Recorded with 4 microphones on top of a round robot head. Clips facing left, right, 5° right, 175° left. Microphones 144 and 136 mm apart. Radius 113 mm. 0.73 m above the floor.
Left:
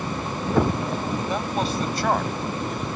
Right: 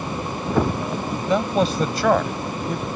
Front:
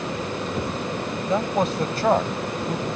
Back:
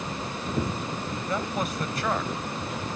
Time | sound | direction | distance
1.3 | a man speaking | 80° right | ?